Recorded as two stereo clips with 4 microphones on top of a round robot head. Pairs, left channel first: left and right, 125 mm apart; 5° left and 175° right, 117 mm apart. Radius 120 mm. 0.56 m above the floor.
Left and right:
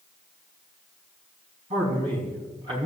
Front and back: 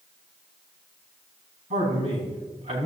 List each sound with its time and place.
1.7 s a man speaking: 140° right, 4.5 m